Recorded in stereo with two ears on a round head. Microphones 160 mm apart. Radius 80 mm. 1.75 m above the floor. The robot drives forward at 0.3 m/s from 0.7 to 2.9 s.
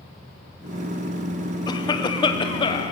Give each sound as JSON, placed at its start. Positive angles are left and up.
{"t": 1.7, "sound": "a cough", "side_deg": 25, "distance_m": 0.7}